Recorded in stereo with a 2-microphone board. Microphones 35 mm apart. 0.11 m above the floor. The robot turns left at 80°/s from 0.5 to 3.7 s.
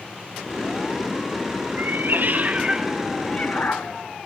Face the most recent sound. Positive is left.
turn(degrees=120)